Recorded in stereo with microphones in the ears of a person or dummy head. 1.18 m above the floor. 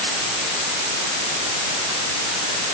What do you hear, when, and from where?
Only background noise.